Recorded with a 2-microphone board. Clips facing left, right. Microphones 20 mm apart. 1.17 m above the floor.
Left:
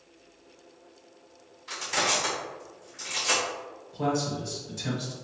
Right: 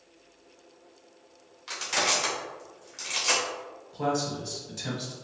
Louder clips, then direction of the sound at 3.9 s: Even; 15° right (ahead or behind).